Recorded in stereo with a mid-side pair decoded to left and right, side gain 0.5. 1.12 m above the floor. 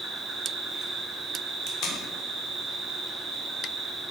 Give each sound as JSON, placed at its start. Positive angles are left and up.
{"t": 0.0, "sound": "an insect", "azimuth_deg": -50, "distance_m": 1.1}
{"t": 1.7, "sound": "tape being pulled", "azimuth_deg": 70, "distance_m": 0.7}